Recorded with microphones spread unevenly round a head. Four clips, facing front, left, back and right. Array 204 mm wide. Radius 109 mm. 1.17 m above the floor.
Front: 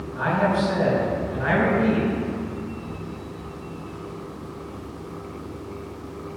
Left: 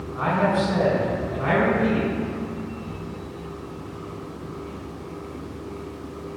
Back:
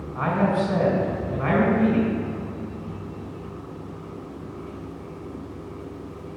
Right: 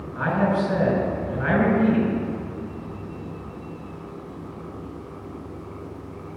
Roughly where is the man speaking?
Behind.